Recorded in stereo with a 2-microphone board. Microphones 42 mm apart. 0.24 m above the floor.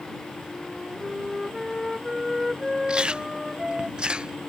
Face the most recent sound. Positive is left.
turn(degrees=-25)  # may be behind; listen again after turning